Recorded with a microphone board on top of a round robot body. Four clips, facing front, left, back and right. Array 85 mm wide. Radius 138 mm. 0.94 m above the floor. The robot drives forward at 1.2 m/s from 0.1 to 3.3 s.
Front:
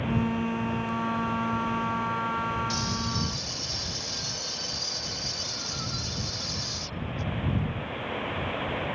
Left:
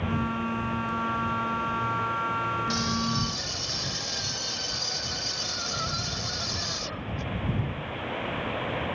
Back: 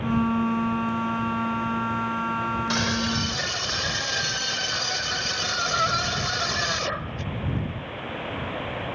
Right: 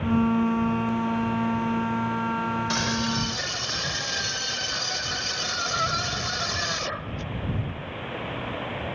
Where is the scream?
145° right; by 7.3 s 150° right.